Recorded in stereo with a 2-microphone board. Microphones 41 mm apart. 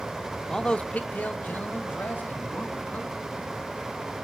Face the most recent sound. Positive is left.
turn(degrees=60)  # may be behind; listen again after turning